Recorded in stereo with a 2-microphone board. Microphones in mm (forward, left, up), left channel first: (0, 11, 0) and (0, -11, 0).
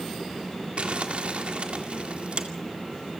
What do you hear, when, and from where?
0.8 s crumpling: 60° right (ahead or behind), 2.0 m